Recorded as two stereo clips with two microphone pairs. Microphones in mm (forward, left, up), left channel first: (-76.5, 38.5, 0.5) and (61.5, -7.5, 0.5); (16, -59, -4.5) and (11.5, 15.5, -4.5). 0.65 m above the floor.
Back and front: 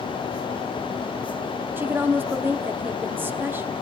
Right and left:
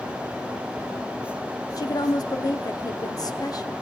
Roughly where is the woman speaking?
Right.